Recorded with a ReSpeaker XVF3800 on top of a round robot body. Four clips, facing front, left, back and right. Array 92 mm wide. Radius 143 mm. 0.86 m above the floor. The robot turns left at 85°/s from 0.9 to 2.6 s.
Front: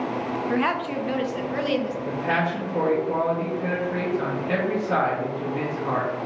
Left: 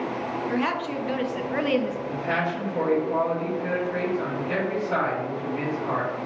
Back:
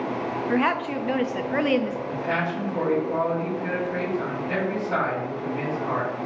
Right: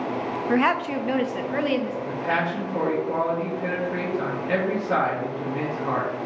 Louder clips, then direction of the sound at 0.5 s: Right 7 dB, back 2 dB; 115° right.